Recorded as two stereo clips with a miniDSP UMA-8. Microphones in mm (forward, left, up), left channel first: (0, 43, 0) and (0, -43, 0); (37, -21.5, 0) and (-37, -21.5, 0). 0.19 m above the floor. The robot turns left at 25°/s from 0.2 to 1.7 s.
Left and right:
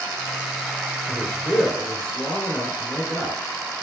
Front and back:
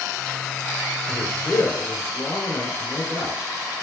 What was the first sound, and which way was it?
A man speaking, 20° left.